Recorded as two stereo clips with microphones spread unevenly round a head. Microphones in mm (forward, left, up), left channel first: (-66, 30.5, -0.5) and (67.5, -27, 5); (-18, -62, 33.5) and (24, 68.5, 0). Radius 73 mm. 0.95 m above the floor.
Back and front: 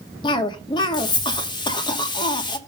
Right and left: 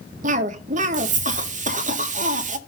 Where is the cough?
95° left, 1.7 m.